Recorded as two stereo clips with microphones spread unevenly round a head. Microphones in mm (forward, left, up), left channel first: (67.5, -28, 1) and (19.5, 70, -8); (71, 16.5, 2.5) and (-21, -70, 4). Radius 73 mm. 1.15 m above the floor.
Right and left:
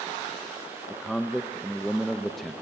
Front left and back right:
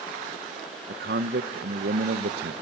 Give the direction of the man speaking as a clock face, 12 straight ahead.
5 o'clock.